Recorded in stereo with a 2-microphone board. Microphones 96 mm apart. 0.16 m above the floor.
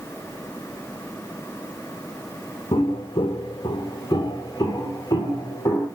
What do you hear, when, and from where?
2.7 s footsteps: 80° left, 0.6 m; by 5.9 s 30° left (ahead or behind), 2.0 m